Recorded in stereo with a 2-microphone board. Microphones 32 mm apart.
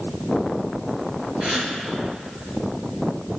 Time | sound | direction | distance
1.4 | a gasp | 35° right (ahead or behind) | 3 m